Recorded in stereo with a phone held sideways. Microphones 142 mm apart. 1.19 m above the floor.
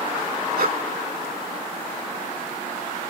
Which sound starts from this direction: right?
Breathing, at 0.6 s.